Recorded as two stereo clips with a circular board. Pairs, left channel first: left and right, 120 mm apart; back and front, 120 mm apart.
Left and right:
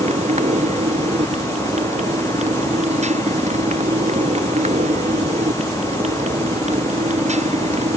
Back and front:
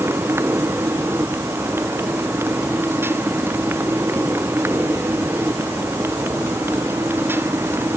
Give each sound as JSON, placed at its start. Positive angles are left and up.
{"t": 0.0, "sound": "a motorcycle", "azimuth_deg": -70}